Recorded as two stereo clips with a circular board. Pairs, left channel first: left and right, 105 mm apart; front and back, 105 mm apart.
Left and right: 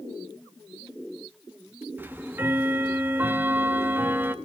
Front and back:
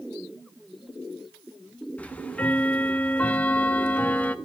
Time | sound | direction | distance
2.0 | ticking | 55° right | 0.9 m